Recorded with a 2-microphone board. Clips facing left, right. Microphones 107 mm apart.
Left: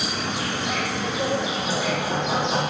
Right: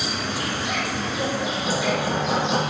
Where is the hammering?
40° right (ahead or behind), 4.5 m.